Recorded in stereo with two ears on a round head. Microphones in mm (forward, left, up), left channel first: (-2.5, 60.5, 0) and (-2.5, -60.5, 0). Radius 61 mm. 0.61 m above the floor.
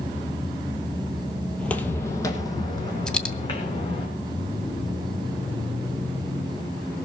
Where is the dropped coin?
5° left (ahead or behind), 0.7 m.